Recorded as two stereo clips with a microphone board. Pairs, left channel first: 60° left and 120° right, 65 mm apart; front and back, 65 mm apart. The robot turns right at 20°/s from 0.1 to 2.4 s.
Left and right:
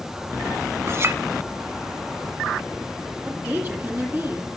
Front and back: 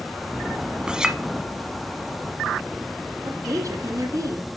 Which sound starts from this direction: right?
A clink, at 0.9 s.